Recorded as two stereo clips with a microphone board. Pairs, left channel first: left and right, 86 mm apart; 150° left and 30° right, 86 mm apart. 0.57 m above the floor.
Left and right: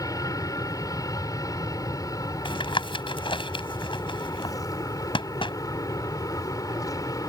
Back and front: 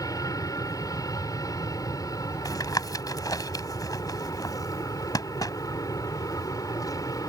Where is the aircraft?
120° left.